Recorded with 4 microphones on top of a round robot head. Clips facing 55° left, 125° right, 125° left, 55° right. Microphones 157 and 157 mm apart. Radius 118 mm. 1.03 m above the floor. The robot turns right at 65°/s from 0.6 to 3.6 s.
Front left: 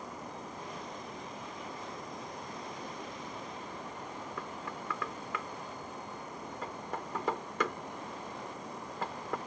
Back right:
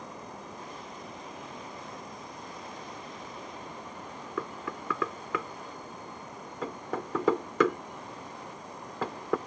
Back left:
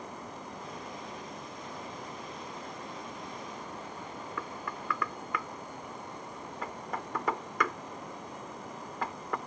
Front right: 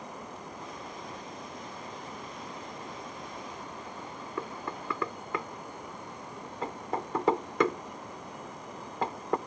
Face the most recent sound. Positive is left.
turn(degrees=-120)